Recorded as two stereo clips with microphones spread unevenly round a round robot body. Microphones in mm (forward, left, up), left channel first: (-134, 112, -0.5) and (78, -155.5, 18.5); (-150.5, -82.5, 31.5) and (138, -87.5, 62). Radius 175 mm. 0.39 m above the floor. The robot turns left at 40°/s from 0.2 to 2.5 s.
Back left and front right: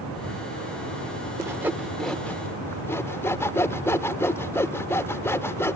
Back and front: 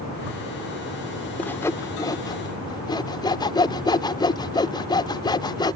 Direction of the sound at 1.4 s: 125° right.